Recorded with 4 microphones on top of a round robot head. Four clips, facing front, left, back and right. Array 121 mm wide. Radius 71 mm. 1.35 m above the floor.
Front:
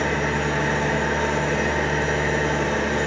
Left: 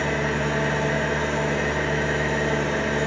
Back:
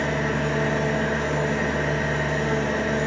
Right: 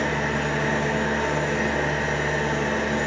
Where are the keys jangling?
I don't hear keys jangling.